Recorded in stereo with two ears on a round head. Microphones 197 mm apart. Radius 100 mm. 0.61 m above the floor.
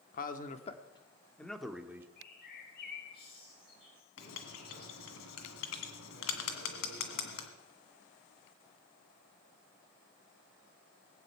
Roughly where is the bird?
Left.